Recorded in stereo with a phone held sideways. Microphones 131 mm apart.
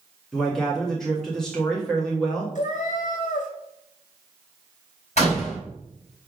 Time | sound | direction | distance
0.3 | a man speaking | 5° left (ahead or behind) | 1.6 m
2.5 | a cat meowing | 70° left (ahead or behind) | 1.2 m
5.2 | a door slam | 55° left (ahead or behind) | 4 m